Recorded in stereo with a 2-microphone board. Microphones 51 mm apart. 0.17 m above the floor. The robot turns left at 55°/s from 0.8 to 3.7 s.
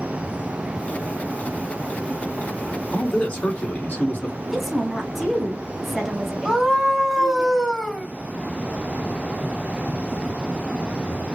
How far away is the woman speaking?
About 1.0 m.